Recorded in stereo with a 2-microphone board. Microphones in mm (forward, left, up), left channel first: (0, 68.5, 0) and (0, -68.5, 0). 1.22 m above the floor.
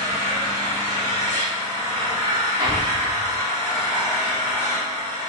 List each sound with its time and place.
0.0 s an engine running: 55° left (ahead or behind), 1.2 m
2.6 s an explosion: 30° right (ahead or behind), 0.5 m